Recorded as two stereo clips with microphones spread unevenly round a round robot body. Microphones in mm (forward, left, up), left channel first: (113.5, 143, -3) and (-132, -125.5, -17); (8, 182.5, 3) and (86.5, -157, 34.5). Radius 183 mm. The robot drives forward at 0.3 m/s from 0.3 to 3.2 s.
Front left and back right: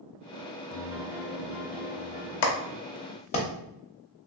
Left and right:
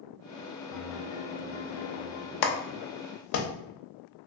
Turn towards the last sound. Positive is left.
turn(degrees=120)